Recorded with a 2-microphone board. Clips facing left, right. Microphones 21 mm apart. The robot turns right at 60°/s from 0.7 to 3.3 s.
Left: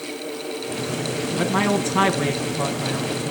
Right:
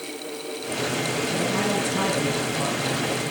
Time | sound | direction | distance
1.4 | a man speaking | 80° left | 2 m